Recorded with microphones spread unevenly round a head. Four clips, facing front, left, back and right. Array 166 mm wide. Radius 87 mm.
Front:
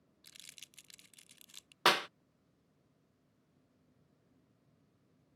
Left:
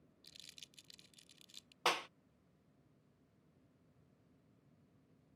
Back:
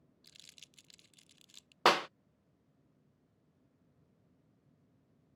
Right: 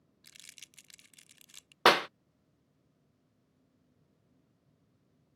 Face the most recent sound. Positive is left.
turn(degrees=-90)